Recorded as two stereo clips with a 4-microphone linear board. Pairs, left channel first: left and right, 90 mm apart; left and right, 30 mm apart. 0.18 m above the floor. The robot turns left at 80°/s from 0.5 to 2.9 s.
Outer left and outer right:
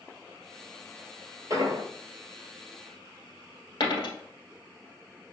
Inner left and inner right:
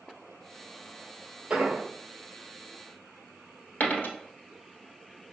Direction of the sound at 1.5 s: 40° right (ahead or behind).